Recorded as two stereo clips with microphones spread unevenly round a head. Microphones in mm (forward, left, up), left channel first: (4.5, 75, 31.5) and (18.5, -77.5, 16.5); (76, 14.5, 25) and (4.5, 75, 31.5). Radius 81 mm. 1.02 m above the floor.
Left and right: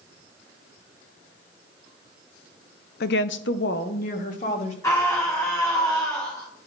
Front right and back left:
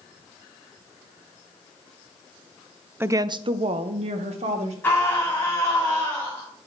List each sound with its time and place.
3.0 s a woman speaking: 70° left, 0.5 m; by 4.7 s 145° left, 1.5 m
4.8 s a scream: 25° left, 1.9 m